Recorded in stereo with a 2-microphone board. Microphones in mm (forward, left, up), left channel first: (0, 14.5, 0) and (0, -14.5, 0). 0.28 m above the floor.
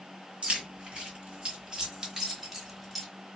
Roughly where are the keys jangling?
Right.